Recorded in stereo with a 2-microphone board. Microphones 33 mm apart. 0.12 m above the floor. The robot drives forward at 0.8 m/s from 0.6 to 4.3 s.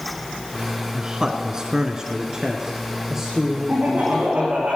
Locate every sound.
0.9 s a man speaking: 25° right (ahead or behind), 1.2 m; by 4.7 s 10° right (ahead or behind), 2.5 m
3.7 s laughter: 45° right (ahead or behind), 6 m; by 4.8 s 50° right (ahead or behind), 5.5 m